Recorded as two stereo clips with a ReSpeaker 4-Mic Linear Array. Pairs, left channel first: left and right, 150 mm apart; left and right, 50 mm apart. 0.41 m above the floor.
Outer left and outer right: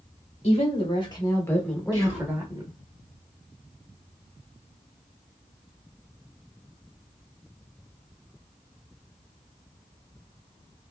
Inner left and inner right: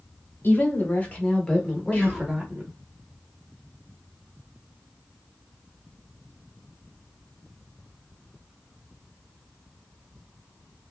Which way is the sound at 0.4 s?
45° left (ahead or behind).